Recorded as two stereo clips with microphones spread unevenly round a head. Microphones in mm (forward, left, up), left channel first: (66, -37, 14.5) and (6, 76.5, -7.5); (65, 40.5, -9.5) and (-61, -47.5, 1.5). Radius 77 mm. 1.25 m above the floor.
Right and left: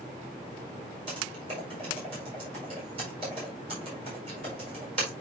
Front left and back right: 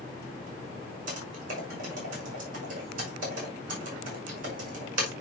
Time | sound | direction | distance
1.1 | typing on a keyboard | 175° left | 6 m